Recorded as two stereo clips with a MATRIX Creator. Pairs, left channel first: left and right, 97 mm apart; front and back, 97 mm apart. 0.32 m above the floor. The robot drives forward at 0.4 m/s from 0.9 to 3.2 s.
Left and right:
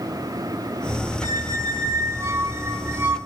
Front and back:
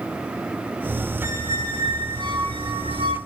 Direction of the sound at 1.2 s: 120° right.